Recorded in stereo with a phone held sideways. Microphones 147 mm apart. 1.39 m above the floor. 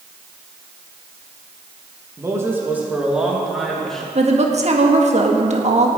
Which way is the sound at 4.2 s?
50° right (ahead or behind).